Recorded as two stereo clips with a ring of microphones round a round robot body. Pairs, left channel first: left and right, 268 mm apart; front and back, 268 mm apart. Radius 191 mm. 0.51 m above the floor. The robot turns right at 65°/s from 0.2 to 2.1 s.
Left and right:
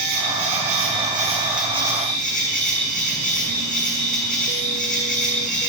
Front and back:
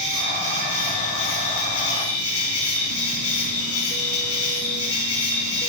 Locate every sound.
0.0 s an insect: 95° right, 5 m; by 5.7 s 30° left, 5 m